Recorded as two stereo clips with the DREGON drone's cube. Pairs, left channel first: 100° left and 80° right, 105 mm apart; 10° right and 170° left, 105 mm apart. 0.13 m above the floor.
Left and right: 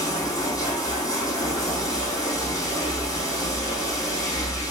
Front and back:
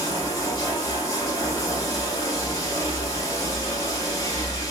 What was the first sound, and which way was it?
Running water, 45° left.